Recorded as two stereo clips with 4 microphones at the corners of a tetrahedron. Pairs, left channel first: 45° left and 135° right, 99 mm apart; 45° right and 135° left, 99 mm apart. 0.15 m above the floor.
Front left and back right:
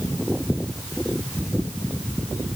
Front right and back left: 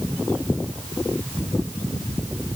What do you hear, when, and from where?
Only background noise.